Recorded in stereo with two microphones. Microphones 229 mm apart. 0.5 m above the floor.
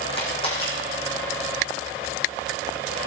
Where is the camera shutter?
25° left (ahead or behind), 4.5 m.